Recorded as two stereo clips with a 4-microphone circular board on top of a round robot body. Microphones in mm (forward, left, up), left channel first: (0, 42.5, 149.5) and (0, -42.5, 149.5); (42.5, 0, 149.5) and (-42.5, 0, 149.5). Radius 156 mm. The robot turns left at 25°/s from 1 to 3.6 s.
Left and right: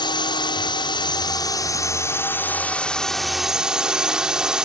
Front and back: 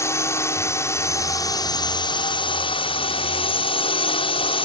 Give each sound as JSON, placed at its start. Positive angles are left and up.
{"t": 0.0, "sound": "a drone", "azimuth_deg": 60}